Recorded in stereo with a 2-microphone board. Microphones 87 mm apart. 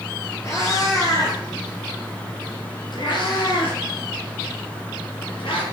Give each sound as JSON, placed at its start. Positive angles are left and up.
{"t": 0.4, "sound": "a cat meowing", "side_deg": 35, "distance_m": 4.0}